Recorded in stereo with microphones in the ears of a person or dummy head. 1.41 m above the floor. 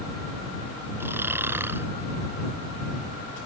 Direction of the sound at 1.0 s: 15° right (ahead or behind).